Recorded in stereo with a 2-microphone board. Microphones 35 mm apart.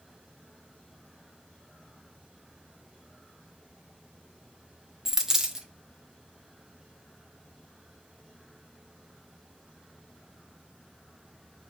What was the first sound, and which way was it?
A dropped coin, 15° right (ahead or behind).